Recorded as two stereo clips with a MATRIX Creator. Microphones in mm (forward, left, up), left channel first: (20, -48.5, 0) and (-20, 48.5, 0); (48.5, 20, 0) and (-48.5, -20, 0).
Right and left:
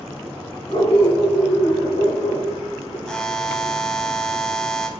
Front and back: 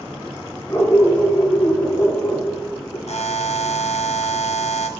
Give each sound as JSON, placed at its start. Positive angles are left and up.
{"t": 0.7, "sound": "a dog barking", "azimuth_deg": -40, "distance_m": 7.0}
{"t": 3.1, "sound": "a buzzer", "azimuth_deg": 15, "distance_m": 2.0}